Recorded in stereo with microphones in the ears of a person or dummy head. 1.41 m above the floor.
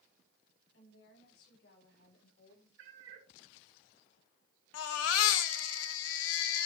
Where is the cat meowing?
70° right (ahead or behind), 3.5 m.